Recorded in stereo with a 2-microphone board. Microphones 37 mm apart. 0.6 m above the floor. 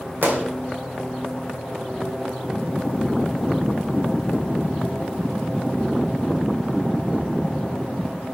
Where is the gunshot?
65° right (ahead or behind), 1.8 m.